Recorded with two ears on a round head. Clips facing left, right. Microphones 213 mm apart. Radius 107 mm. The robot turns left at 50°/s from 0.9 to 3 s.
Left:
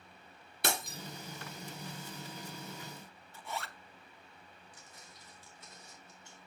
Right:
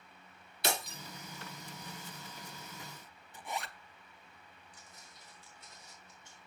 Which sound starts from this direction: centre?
A zipper, at 3.3 s.